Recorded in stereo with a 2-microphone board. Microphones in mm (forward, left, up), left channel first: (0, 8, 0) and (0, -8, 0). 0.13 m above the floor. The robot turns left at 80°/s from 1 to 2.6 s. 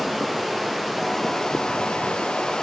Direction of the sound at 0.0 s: 175° right.